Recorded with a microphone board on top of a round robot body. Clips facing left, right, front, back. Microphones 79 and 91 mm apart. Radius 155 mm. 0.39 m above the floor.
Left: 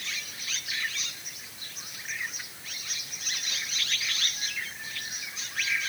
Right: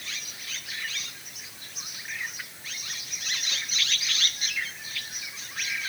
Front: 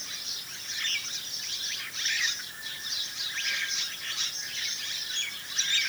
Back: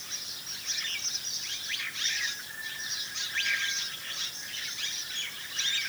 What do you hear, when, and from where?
Only background noise.